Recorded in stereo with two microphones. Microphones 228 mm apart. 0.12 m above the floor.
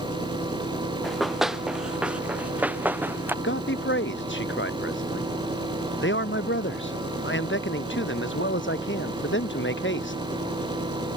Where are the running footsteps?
Centre (ahead or behind); by 3.3 s 10° right (ahead or behind).